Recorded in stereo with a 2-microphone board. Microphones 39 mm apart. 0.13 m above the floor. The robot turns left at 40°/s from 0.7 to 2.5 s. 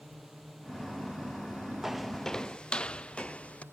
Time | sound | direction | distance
0.0 | a drone | centre (ahead or behind) | ?
1.8 | footsteps | 10° right (ahead or behind) | ?